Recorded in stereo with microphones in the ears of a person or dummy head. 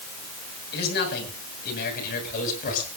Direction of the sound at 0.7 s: 60° left (ahead or behind).